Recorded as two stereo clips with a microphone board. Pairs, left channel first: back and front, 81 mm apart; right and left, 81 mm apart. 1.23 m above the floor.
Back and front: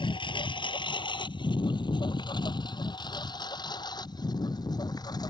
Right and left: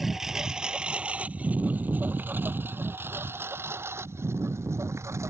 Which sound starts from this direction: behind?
A lawn mower, at 0.0 s.